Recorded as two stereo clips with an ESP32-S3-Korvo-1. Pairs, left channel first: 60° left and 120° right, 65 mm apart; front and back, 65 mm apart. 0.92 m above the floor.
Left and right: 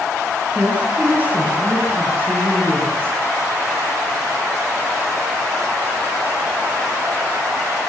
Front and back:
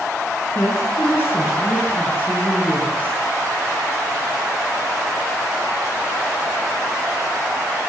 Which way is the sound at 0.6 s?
50° right.